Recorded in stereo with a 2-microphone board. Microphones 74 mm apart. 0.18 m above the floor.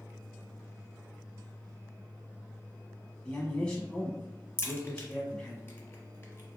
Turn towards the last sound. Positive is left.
turn(degrees=30)  # may be behind; listen again after turning